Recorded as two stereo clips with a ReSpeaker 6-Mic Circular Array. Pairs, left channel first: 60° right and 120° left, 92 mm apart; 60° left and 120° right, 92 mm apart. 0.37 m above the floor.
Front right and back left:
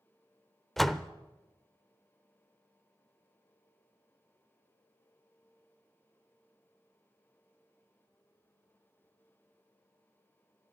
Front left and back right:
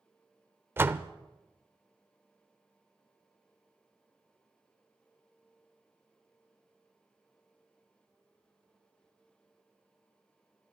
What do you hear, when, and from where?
0.8 s a door slam: 145° right, 0.6 m